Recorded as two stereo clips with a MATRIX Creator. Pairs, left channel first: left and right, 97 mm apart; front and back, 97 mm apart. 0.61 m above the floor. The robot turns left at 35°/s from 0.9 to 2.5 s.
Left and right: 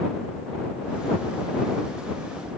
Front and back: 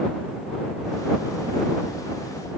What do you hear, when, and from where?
Only background noise.